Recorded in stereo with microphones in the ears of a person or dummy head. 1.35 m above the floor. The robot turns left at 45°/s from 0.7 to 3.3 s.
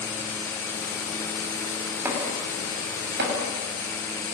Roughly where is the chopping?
Centre.